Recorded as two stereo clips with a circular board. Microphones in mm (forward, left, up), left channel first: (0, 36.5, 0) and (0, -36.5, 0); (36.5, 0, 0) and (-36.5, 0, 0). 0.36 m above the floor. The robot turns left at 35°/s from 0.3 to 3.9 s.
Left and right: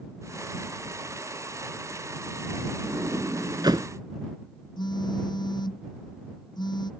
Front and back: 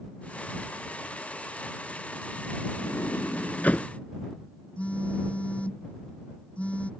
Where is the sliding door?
40° right; by 3.9 s 75° right.